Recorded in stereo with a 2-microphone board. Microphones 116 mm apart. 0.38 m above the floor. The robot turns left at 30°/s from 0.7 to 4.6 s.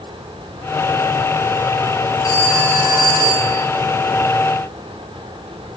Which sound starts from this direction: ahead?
A phone ringing, at 2.2 s.